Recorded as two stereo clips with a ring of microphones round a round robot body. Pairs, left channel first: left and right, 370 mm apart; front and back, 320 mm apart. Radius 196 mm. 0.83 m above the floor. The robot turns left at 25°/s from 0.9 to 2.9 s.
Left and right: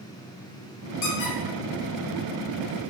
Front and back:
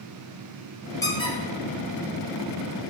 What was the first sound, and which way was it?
A squeak, 80° left.